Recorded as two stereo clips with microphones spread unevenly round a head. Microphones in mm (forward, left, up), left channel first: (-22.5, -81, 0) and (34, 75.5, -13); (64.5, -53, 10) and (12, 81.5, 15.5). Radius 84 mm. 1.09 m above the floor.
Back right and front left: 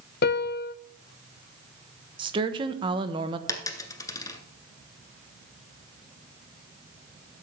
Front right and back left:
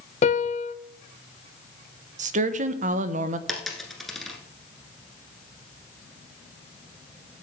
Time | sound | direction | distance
0.2 | a piano | 95° right | 0.6 m
2.2 | a woman speaking | 120° left | 1.0 m
3.5 | a dropped coin | 160° right | 1.2 m